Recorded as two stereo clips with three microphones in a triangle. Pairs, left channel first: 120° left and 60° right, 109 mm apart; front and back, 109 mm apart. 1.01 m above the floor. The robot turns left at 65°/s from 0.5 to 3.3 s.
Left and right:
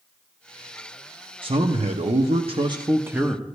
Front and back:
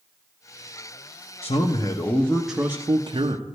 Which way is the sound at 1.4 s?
25° right.